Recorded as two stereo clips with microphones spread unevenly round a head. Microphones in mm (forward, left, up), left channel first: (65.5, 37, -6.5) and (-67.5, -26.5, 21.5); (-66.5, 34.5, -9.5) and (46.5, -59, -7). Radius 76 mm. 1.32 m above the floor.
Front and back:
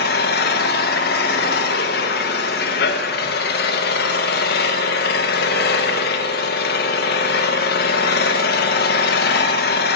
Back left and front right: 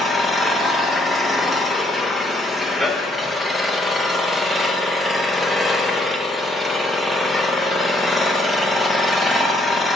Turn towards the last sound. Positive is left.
turn(degrees=50)